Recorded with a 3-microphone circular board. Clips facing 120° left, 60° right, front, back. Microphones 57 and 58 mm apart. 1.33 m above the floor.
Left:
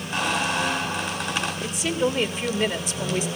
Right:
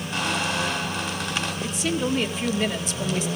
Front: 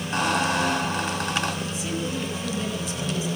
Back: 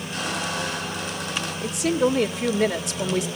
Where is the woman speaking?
155° right, 1.9 m.